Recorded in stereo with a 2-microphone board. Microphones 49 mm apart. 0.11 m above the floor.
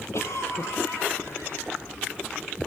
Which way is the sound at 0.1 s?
65° left (ahead or behind).